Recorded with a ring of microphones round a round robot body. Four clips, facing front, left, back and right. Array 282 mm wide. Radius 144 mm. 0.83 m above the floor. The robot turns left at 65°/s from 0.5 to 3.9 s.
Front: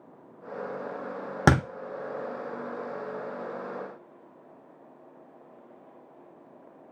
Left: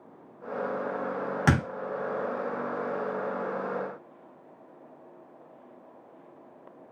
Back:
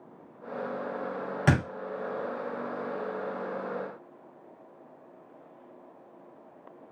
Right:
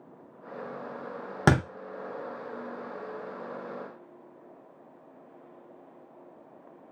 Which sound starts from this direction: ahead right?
A thud, at 1.5 s.